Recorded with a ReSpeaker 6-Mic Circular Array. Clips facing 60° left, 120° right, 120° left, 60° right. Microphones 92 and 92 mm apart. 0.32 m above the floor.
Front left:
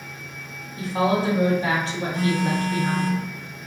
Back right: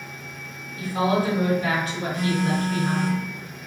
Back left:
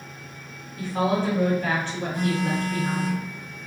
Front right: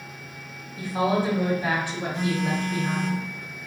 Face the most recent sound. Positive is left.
turn(degrees=45)